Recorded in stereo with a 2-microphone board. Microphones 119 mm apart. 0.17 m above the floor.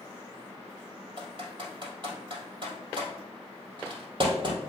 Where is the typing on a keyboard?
45° right (ahead or behind), 2.5 m.